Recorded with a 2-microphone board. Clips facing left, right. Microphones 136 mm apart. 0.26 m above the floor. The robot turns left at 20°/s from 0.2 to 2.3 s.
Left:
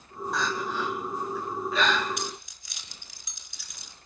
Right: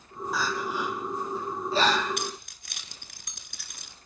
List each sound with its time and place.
0.3 s crying: 5° right (ahead or behind), 3.5 m; by 2.1 s 40° right (ahead or behind), 3.5 m
2.2 s keys jangling: 60° right (ahead or behind), 2.5 m